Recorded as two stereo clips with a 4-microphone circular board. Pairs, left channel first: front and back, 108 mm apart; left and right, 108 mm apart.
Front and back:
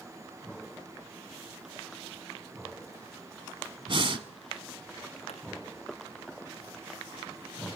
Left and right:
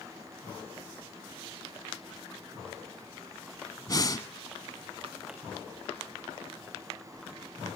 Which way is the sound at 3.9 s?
145° left.